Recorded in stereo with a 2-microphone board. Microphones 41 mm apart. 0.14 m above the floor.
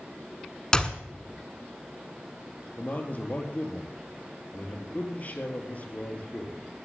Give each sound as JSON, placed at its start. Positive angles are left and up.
{"t": 0.7, "sound": "a clap", "side_deg": 20, "distance_m": 1.3}
{"t": 2.8, "sound": "a man speaking", "side_deg": 40, "distance_m": 4.0}